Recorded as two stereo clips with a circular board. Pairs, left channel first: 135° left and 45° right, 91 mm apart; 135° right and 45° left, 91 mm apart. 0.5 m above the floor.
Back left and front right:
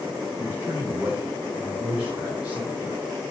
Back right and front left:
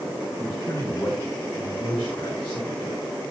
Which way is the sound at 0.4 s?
110° right.